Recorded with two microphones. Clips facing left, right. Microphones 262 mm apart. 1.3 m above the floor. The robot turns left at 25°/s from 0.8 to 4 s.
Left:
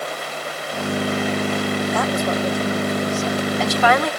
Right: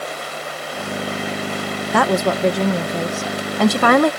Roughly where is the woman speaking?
Right.